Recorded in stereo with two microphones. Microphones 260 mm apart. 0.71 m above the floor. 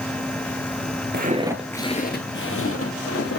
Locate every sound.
1.1 s footsteps: 40° right (ahead or behind), 0.9 m; by 3.4 s 70° left (ahead or behind), 2 m